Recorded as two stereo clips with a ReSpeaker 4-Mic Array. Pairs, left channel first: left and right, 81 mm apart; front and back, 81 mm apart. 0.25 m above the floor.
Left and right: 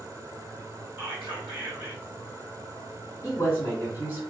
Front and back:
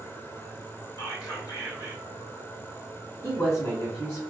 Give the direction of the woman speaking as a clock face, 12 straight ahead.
10 o'clock.